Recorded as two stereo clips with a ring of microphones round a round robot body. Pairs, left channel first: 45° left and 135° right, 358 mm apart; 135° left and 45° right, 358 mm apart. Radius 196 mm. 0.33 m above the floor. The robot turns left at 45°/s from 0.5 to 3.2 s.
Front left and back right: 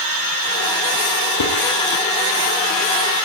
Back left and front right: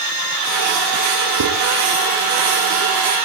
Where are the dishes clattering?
Straight ahead, 7 m; by 1.5 s 5° right, 7 m.